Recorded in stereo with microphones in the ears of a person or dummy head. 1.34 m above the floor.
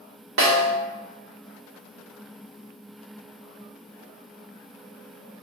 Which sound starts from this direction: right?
A snare drum, at 0.4 s.